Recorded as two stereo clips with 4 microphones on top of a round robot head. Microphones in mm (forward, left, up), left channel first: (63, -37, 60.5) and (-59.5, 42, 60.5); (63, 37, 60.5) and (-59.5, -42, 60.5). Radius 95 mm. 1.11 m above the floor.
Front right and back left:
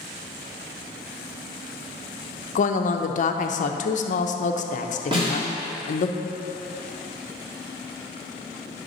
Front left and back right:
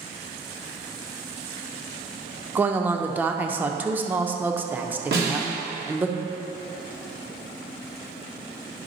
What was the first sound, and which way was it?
A woman speaking, 70° right.